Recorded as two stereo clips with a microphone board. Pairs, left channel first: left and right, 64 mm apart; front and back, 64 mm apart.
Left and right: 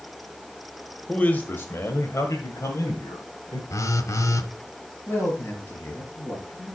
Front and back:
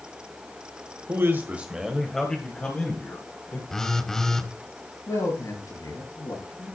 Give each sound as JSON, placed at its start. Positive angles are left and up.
{"t": 1.1, "sound": "a man speaking", "azimuth_deg": 155, "distance_m": 1.5}
{"t": 3.7, "sound": "a phone buzzing", "azimuth_deg": 80, "distance_m": 1.2}
{"t": 5.1, "sound": "a man speaking", "azimuth_deg": 30, "distance_m": 6.5}